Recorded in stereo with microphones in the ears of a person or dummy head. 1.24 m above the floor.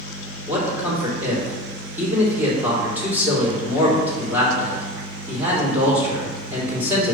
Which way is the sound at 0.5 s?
15° right (ahead or behind).